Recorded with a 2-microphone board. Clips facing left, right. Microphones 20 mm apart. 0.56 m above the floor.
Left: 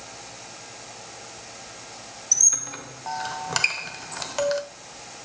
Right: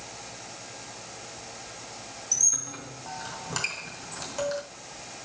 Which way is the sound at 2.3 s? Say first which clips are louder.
Left 5 dB; 35° left (ahead or behind).